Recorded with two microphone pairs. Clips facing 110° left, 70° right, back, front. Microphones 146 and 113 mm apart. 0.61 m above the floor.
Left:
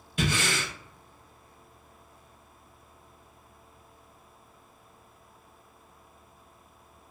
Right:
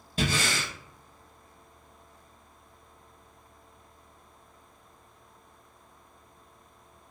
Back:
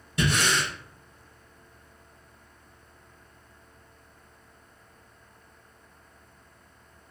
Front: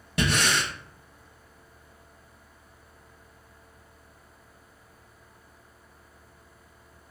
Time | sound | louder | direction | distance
0.2 | breathing | even, even | 15° right | 0.9 m